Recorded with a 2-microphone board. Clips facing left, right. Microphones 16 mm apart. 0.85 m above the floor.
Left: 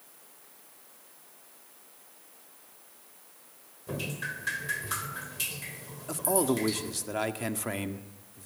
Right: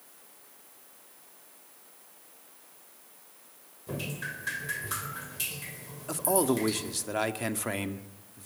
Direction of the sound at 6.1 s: 10° right (ahead or behind).